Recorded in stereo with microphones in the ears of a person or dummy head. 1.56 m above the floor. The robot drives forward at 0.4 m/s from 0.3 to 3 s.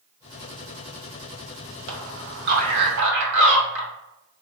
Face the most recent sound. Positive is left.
turn(degrees=-85)